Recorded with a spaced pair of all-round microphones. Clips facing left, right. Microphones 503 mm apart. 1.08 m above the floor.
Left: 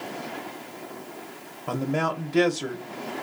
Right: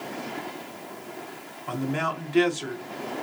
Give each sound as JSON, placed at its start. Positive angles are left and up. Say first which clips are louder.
{"t": 1.7, "sound": "a man speaking", "louder": "left 2 dB", "side_deg": 60, "distance_m": 0.8}